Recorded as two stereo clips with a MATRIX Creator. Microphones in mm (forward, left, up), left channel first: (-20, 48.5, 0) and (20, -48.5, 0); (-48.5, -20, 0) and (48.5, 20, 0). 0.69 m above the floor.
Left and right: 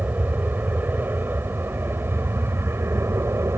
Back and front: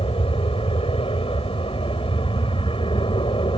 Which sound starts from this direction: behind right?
An aircraft, at 0.0 s.